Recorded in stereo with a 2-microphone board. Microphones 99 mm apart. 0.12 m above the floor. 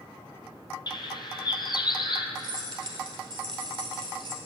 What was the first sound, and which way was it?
A bird, 45° left (ahead or behind).